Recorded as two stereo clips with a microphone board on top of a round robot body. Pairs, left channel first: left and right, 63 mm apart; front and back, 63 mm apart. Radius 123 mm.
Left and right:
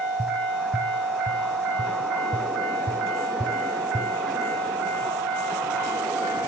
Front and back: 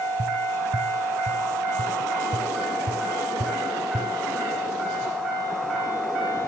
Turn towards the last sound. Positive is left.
turn(degrees=180)